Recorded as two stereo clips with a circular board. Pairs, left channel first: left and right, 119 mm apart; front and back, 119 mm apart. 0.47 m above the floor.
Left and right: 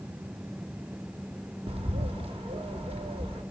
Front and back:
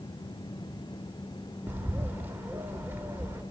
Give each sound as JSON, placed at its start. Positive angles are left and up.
{"t": 1.7, "sound": "a bird", "azimuth_deg": -110, "distance_m": 0.9}